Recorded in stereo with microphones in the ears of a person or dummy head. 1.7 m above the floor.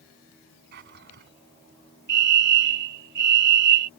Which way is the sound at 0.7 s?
60° right (ahead or behind).